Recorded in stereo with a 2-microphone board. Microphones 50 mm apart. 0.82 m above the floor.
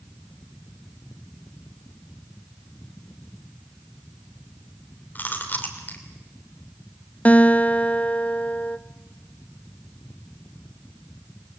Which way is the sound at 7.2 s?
30° left (ahead or behind).